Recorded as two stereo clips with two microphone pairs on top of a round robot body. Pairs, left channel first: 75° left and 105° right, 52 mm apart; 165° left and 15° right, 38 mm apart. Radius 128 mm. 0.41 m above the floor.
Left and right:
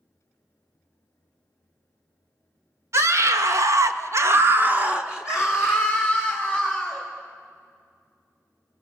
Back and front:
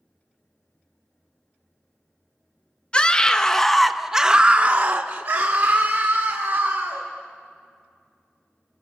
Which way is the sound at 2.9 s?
130° right.